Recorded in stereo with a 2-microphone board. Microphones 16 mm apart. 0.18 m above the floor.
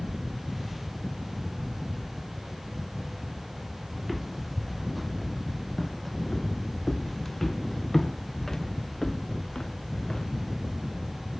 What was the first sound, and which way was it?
Footsteps, 5° right (ahead or behind).